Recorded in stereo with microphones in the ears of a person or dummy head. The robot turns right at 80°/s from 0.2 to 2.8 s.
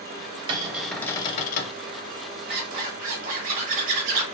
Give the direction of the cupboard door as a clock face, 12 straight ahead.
1 o'clock.